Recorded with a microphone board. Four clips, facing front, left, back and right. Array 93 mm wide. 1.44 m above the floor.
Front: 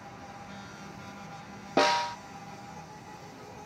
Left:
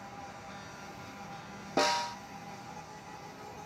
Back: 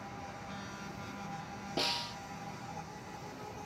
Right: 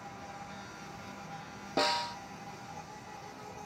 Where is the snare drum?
10° left.